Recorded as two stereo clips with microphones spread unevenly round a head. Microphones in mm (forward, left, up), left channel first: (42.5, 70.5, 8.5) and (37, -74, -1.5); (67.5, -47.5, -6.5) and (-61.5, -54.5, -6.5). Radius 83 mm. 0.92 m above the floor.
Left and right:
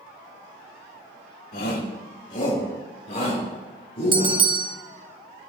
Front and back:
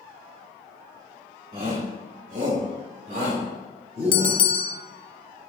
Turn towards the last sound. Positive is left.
turn(degrees=-40)